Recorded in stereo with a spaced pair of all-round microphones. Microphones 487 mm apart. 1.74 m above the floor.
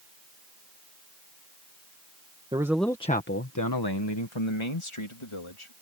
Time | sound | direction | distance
2.5 | a man speaking | 10° right (ahead or behind) | ?